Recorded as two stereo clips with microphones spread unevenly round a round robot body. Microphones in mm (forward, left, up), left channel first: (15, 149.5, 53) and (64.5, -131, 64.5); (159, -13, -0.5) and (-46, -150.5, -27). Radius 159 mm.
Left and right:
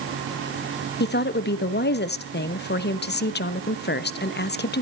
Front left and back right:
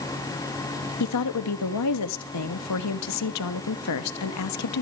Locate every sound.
1.0 s a woman speaking: 50° left, 1.2 m